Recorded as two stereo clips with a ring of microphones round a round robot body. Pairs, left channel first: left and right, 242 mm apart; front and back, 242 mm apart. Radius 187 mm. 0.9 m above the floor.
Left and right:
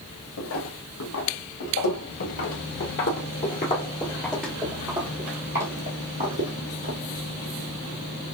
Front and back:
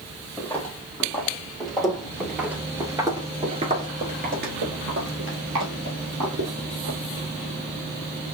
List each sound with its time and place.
0.4 s footsteps: 80° left, 2 m; by 7.0 s 130° right, 1.9 m